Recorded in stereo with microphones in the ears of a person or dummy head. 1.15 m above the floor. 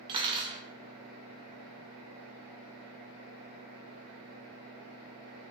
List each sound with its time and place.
0.1 s cutlery clinking: 25° right (ahead or behind), 0.8 m